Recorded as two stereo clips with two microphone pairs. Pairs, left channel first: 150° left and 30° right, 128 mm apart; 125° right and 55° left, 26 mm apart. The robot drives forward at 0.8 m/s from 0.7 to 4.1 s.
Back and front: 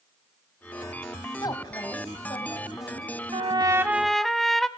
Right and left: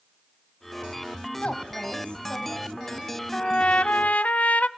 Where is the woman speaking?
155° right, 3 m; by 3.1 s 160° right, 4 m.